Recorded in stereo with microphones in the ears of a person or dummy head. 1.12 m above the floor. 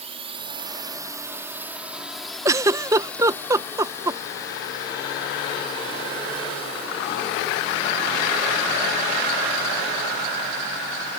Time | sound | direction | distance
0.0 | a drone | 30° right (ahead or behind) | ?
2.5 | a giggle | 20° right (ahead or behind) | ?